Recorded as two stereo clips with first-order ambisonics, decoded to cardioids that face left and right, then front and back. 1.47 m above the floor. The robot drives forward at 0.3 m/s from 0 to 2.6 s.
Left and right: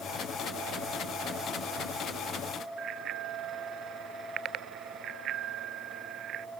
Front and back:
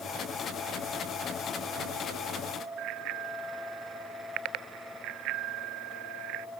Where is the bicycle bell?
145° right.